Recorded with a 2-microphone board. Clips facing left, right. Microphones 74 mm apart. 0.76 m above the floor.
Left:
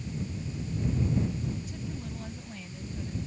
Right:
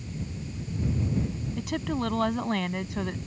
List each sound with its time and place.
1.6 s a woman speaking: 85° right